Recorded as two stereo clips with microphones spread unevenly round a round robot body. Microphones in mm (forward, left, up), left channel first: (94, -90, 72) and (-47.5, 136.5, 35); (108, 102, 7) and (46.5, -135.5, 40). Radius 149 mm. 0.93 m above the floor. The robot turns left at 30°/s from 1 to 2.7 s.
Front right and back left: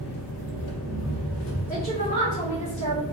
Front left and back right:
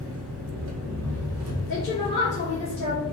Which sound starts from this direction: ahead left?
A woman speaking, at 1.7 s.